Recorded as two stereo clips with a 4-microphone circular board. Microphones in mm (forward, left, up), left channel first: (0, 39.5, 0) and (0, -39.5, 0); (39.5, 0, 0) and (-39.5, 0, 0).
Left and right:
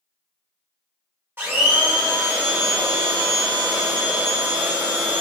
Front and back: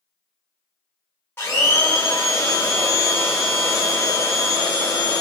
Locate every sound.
1.4 s a blender: 45° right, 1.3 m